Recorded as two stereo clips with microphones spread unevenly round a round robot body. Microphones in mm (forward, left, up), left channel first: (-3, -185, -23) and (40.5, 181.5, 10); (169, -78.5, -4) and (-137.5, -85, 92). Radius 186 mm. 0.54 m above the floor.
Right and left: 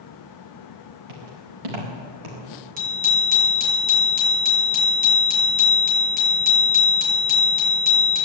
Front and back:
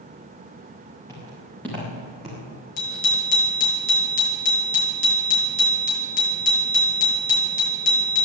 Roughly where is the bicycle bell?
Ahead.